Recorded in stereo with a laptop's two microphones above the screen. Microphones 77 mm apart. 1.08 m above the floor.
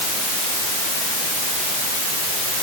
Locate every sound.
Only background noise.